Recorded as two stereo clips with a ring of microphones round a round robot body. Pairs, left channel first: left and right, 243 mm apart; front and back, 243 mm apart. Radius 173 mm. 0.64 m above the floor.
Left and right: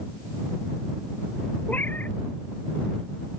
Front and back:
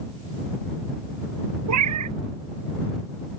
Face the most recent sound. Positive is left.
turn(degrees=175)